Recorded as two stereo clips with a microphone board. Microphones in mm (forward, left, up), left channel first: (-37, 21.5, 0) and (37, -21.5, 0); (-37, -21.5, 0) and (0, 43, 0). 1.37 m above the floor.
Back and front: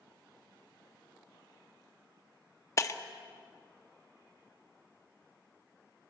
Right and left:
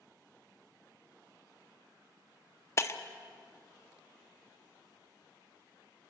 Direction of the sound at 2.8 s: 165° right.